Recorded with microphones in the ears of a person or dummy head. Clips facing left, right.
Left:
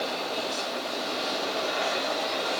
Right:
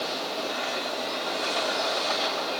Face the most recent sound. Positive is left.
No sound to turn to.